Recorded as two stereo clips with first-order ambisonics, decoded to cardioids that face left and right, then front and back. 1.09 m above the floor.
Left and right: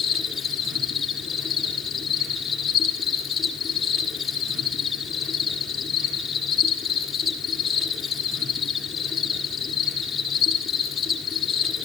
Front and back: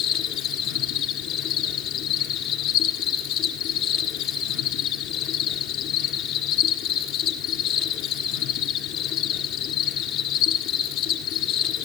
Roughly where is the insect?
Ahead.